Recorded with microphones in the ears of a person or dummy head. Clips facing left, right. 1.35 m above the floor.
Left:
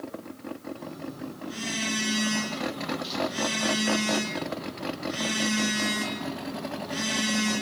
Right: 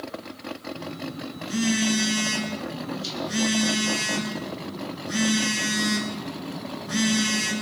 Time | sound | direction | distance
0.8 | a phone buzzing | 70° right (ahead or behind) | 8.5 m